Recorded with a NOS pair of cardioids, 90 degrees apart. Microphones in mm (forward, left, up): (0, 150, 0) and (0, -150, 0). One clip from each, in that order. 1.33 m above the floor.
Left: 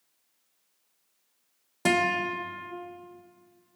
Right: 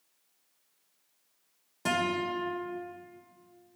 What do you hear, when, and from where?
1.9 s a guitar: 40° left, 0.9 m